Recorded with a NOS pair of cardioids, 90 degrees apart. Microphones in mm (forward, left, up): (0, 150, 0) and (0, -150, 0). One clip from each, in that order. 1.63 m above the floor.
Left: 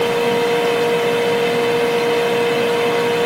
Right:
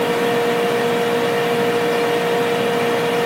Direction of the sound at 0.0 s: 25° left.